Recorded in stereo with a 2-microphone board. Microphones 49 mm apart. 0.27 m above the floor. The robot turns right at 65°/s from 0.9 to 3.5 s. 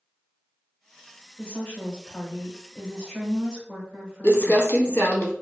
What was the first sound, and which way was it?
A woman speaking, 25° left (ahead or behind).